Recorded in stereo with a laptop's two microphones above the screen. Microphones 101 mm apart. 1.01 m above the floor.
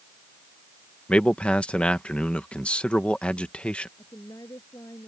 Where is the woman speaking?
40° left (ahead or behind).